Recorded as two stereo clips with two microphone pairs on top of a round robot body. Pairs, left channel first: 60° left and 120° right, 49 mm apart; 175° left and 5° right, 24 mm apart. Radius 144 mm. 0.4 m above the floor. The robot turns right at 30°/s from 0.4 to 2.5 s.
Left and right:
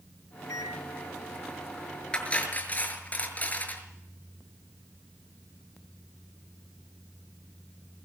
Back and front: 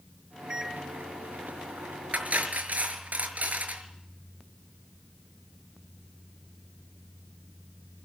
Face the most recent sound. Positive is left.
turn(degrees=0)